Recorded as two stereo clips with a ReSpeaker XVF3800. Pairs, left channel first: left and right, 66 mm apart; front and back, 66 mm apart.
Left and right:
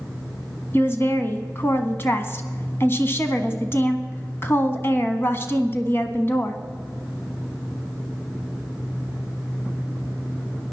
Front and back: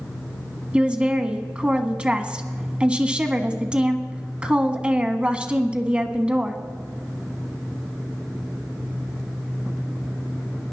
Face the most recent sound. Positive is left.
turn(degrees=115)